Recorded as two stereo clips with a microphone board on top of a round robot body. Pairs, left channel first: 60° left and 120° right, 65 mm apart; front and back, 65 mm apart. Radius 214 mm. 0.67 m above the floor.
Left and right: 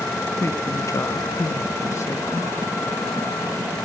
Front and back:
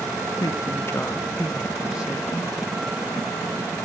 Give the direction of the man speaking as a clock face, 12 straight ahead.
12 o'clock.